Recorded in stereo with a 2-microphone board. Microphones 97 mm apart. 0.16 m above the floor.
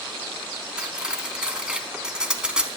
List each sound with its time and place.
0.8 s cutlery clinking: 10° right (ahead or behind), 0.6 m